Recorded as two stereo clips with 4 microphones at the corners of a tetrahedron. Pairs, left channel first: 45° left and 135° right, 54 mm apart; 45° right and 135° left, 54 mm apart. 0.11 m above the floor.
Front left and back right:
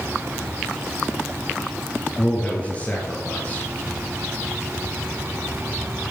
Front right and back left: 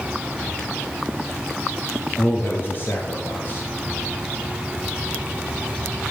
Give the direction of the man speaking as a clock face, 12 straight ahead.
12 o'clock.